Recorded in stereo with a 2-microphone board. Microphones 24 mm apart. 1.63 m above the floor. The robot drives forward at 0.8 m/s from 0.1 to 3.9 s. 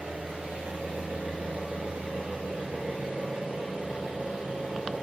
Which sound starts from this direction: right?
An engine running, at 0.0 s.